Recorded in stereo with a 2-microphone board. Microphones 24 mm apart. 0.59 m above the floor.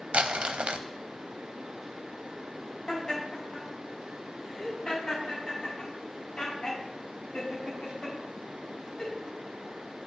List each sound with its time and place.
0.1 s crumpling: 60° right (ahead or behind), 0.6 m
2.9 s laughter: 30° left (ahead or behind), 5 m